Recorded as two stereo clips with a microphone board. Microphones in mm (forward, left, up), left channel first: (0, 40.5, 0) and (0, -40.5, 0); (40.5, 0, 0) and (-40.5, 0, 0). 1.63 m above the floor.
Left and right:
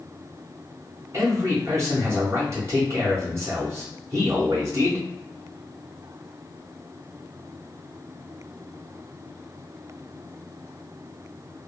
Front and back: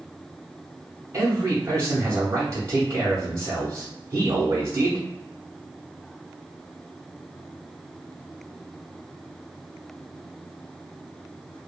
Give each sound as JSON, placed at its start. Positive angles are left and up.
{"t": 1.1, "sound": "a man speaking", "azimuth_deg": -135, "distance_m": 0.6}